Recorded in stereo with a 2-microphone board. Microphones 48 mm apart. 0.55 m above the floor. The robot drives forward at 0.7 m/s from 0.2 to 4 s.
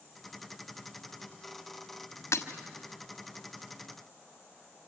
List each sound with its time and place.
2.3 s breaking glass: 80° left, 1.4 m; by 2.5 s 85° left, 1.4 m